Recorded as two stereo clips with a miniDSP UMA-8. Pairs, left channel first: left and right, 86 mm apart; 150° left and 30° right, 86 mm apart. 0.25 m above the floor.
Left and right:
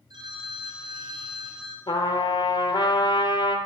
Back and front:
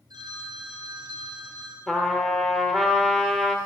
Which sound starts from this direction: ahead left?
A trumpet, at 1.9 s.